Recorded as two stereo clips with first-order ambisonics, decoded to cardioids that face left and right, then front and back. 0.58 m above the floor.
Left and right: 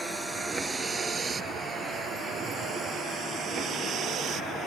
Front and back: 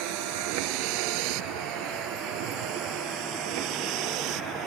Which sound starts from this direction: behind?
A vehicle, at 0.0 s.